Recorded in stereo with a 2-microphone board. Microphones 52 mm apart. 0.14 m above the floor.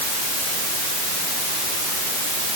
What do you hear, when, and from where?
Only background noise.